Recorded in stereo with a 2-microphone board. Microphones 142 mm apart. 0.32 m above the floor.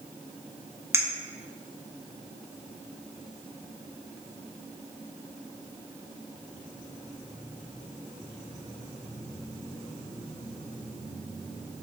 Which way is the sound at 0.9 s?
20° right (ahead or behind).